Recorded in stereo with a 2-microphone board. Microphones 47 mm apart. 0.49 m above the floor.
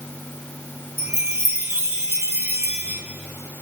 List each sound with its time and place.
1.0 s a chime: 80° right, 4 m